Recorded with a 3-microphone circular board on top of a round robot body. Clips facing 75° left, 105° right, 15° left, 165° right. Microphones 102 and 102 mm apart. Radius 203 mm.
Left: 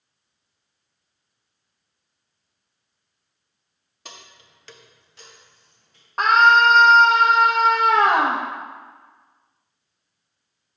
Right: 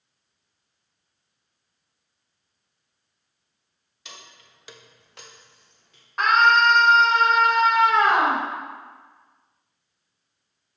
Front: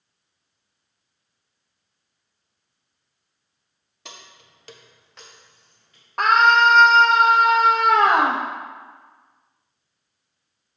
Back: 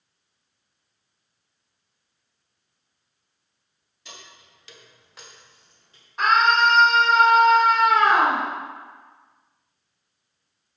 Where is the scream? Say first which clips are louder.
Left 3 dB, front 3 dB; 20° left, 1.1 m.